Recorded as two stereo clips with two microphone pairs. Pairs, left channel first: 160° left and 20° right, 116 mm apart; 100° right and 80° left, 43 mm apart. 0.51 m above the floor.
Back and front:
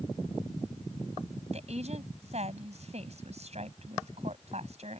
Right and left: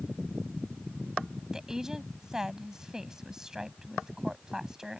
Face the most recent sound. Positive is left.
turn(degrees=0)